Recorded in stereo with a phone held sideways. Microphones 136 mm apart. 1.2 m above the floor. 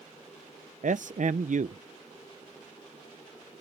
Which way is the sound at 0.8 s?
65° right (ahead or behind).